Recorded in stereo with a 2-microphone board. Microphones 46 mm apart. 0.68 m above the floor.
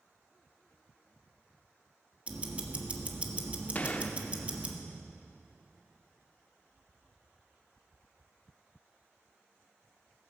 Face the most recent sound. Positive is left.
turn(degrees=35)  # may be behind; listen again after turning